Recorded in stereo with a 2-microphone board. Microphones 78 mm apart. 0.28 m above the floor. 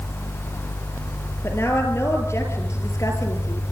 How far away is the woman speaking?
About 5 m.